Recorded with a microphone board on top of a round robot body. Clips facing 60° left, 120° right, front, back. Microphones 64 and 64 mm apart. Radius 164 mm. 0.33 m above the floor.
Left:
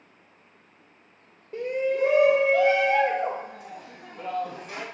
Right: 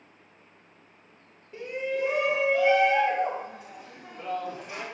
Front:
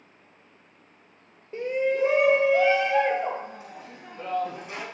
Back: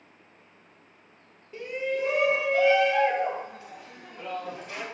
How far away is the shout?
About 1.7 m.